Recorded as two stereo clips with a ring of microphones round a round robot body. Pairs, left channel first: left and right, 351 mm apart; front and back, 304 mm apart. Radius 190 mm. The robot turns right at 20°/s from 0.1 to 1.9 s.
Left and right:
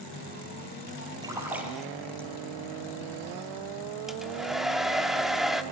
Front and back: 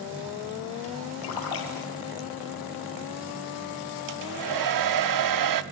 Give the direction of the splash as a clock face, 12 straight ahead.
12 o'clock.